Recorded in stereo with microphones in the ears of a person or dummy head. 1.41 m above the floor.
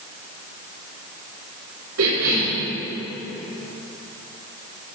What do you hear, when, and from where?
2.0 s a cough: 75° right (ahead or behind), 3.5 m